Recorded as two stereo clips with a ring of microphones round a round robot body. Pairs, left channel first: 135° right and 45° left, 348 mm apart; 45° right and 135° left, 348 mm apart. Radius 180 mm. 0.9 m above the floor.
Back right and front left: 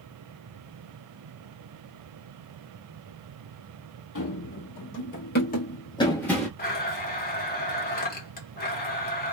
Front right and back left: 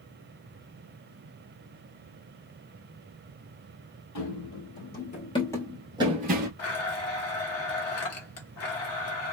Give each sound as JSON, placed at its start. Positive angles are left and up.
{"t": 4.2, "sound": "running footsteps", "azimuth_deg": -85, "distance_m": 1.5}
{"t": 6.6, "sound": "a blender", "azimuth_deg": -80, "distance_m": 1.1}